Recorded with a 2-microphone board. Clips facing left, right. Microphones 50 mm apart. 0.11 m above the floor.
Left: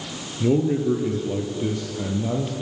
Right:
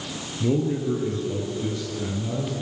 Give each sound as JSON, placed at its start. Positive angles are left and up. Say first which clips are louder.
{"t": 0.4, "sound": "a man speaking", "louder": "left 4 dB", "side_deg": 15, "distance_m": 2.0}